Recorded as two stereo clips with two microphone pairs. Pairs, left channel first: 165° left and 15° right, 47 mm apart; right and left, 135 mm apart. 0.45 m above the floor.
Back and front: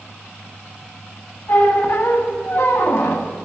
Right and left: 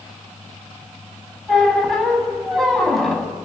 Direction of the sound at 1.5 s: Straight behind.